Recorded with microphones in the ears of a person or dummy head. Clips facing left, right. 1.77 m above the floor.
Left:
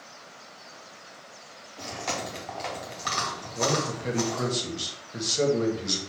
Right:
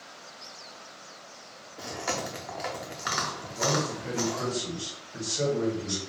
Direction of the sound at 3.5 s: 55° left (ahead or behind).